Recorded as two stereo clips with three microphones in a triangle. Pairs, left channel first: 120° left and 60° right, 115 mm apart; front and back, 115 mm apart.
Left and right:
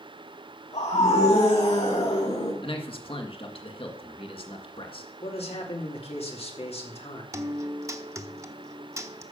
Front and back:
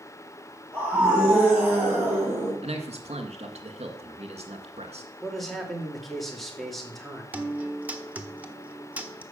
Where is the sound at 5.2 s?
90° left, 3 m.